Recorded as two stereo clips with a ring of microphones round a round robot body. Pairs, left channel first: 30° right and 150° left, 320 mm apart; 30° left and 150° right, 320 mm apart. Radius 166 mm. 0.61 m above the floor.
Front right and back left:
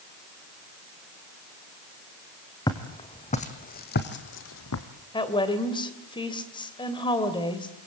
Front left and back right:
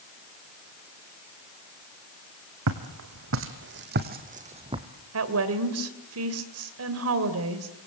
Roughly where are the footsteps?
Right.